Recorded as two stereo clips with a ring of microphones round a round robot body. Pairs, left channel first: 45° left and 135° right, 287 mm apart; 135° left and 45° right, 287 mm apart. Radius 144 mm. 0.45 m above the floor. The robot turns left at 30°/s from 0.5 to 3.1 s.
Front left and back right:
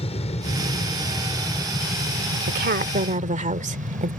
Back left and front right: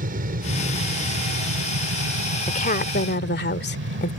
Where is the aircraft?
10° right; by 4.2 s 80° right.